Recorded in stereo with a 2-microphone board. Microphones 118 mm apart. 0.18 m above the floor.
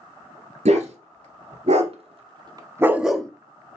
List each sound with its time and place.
0.7 s a dog barking: 75° right (ahead or behind), 1.3 m; by 3.3 s 10° left (ahead or behind), 0.5 m